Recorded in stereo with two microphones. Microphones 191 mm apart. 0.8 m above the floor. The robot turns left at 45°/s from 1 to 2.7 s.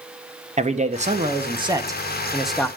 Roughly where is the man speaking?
Behind right.